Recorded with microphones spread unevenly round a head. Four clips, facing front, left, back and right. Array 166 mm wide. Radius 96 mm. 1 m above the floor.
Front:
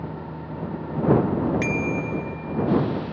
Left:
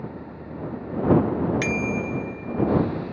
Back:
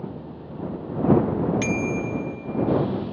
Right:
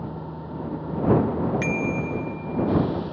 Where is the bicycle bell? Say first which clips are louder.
Even, even; 135° left.